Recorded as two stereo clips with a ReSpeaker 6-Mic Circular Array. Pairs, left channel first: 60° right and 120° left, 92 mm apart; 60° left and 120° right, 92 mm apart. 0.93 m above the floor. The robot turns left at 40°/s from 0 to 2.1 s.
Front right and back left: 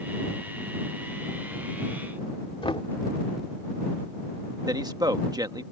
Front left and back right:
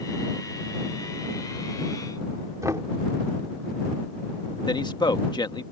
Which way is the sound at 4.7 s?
85° left.